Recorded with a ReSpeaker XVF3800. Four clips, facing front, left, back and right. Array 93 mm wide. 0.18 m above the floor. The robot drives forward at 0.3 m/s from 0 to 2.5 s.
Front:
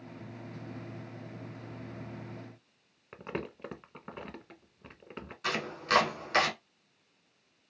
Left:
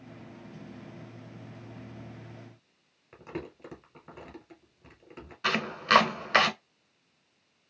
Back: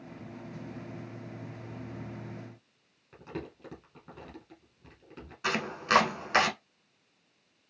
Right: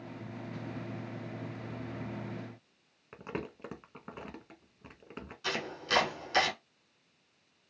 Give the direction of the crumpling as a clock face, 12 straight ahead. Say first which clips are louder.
Even, front 2 dB; 1 o'clock.